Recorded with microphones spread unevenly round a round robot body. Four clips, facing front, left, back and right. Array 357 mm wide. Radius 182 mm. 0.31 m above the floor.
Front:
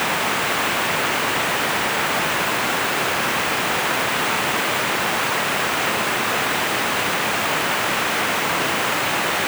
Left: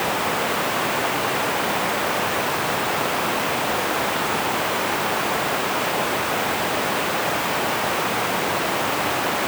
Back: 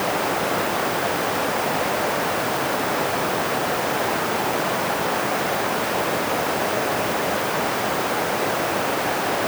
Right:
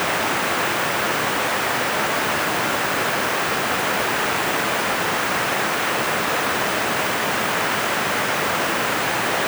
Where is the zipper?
No zipper in this recording.